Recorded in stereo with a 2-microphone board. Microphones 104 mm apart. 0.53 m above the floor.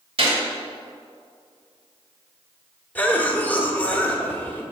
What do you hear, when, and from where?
0.2 s a gunshot: 65° right (ahead or behind), 2 m
3.0 s a cough: 15° left (ahead or behind), 1.3 m